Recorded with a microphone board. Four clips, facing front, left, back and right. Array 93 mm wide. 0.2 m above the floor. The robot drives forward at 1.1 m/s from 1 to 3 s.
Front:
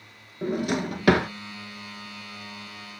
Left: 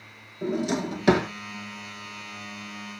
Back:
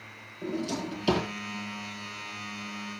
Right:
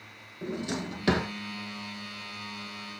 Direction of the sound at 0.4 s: 10° left.